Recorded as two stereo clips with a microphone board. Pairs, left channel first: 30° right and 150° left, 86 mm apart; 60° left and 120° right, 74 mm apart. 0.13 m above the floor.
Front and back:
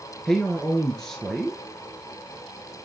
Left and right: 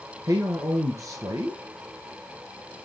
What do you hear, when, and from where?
0.2 s a man speaking: 115° right, 1.8 m